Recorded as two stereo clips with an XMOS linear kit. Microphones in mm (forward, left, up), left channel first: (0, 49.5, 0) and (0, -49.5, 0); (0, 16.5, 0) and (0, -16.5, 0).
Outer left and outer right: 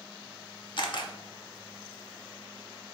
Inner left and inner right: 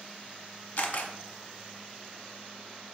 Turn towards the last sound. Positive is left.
turn(degrees=50)  # may be behind; listen again after turning